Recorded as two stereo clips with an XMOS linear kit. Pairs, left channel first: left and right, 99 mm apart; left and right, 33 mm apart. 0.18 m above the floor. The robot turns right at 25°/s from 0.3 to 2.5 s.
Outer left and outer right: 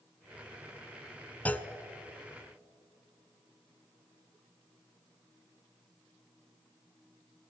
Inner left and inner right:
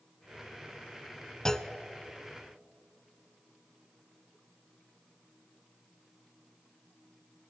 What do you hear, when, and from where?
1.4 s a clunk: 15° left (ahead or behind), 0.6 m; by 1.7 s 20° left (ahead or behind), 0.6 m